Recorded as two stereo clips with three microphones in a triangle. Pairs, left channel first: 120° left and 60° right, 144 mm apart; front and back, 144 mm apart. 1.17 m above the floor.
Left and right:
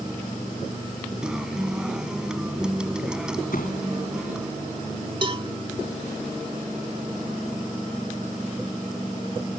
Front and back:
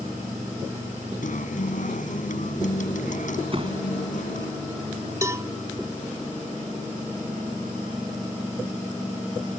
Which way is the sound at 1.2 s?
25° left.